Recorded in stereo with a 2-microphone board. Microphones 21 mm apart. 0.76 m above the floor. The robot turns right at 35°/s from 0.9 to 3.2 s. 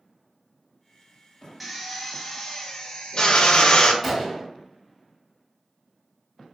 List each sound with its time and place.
1.6 s a drill: 5° right, 0.6 m; by 3.9 s 55° left, 0.6 m
4.0 s a gunshot: 5° right (ahead or behind), 0.7 m